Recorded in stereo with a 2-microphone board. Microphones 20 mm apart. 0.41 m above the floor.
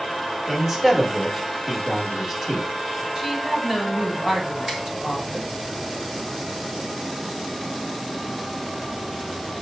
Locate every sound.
0.5 s a man speaking: 20° right (ahead or behind), 1.2 m
3.1 s a woman speaking: 50° right (ahead or behind), 1.8 m
4.7 s a finger snap: 20° right (ahead or behind), 1.1 m